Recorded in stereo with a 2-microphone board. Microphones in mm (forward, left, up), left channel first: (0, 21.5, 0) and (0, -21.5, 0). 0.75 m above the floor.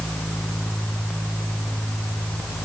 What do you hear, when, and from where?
Only background noise.